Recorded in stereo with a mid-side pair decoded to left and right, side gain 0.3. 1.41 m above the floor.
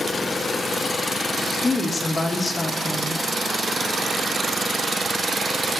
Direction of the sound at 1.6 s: 45° left.